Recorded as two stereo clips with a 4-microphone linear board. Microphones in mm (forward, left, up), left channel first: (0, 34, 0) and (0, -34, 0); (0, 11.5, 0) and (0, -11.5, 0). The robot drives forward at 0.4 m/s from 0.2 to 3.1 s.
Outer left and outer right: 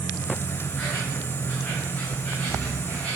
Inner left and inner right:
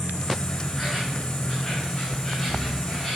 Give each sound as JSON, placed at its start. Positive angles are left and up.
{"t": 0.0, "sound": "an insect", "side_deg": 25, "distance_m": 2.0}